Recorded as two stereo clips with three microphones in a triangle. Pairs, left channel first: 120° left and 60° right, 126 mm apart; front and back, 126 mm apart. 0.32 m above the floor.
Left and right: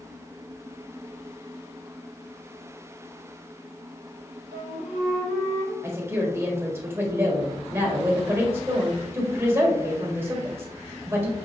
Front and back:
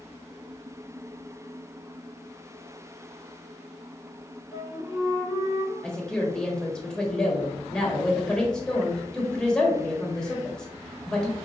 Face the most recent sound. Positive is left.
turn(degrees=-75)